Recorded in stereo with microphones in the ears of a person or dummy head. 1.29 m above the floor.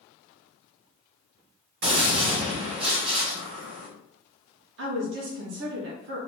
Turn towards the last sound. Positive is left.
turn(degrees=-55)  # may be behind; listen again after turning